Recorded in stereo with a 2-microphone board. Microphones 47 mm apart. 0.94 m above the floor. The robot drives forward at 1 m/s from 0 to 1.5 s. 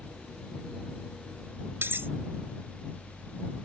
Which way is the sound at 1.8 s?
50° right (ahead or behind).